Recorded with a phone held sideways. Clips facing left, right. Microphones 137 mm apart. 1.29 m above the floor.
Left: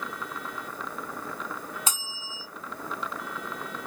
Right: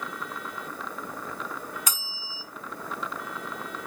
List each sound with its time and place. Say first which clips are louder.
1.9 s a bell: left 1 dB; 25° left (ahead or behind), 3 m